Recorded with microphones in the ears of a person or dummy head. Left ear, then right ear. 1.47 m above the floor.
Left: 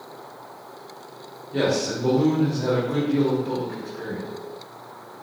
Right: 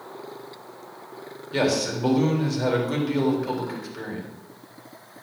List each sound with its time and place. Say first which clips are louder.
1.5 s a man speaking: even; 70° right (ahead or behind), 3.5 m